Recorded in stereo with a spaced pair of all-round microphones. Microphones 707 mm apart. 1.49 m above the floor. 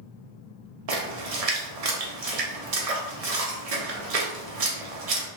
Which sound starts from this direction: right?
A splash, at 0.9 s.